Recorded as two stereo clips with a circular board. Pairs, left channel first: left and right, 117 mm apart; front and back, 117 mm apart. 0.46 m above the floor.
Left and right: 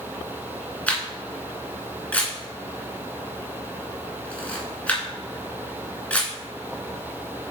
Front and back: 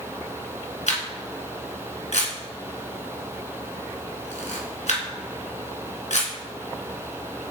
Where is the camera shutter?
10° left, 1.8 m.